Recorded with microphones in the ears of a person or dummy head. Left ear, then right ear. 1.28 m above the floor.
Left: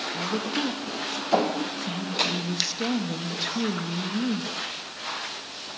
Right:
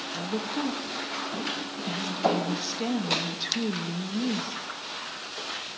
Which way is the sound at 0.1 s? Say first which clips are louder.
Left 1 dB; 5° right (ahead or behind).